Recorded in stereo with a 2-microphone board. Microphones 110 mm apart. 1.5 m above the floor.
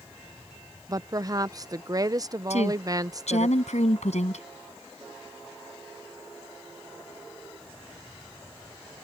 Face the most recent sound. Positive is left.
turn(degrees=85)